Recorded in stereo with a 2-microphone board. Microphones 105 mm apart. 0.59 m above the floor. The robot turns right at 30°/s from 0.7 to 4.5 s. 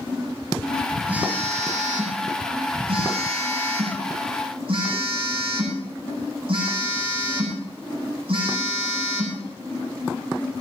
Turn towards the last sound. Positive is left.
turn(degrees=-60)